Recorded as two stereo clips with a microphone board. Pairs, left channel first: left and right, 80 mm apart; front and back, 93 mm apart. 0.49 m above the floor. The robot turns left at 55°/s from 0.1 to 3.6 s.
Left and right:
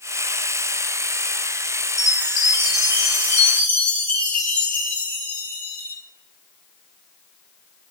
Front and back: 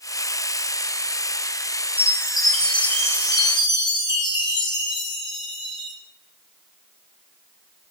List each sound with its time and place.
2.0 s a chime: 115° left, 1.3 m; by 6.0 s 25° left, 1.3 m